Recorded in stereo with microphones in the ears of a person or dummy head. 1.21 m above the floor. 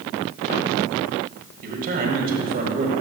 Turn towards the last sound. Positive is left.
turn(degrees=-45)  # may be behind; listen again after turning